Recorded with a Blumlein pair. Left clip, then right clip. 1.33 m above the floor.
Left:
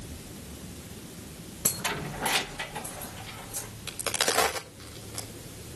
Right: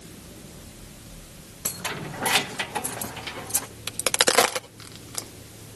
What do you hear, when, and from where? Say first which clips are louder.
1.6 s keys jangling: even; 10° left, 0.7 m; by 3.7 s 35° right, 1.9 m
3.9 s a crack: right 6 dB; 65° right, 1.7 m